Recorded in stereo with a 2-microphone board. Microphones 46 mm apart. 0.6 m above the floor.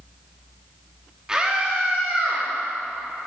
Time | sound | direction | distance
1.3 | a scream | 15° right (ahead or behind) | 1.0 m